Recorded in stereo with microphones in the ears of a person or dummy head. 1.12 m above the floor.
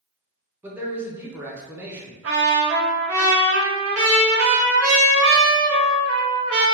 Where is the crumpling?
No crumpling in this recording.